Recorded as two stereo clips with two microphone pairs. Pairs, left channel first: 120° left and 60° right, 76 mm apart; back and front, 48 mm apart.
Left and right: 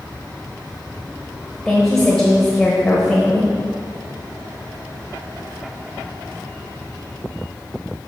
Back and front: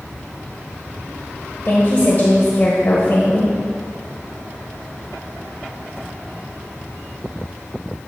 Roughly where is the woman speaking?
Behind right.